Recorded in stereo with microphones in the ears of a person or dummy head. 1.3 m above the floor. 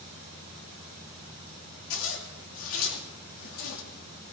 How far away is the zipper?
About 2.5 m.